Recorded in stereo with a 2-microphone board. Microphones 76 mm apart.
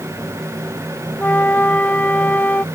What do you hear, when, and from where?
1.2 s a flute: 20° left (ahead or behind)